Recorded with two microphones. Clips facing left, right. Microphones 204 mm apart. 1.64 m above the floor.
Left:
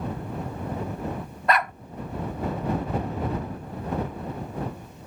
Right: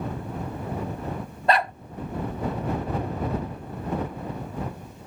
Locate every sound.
1.5 s a dog barking: 30° right (ahead or behind)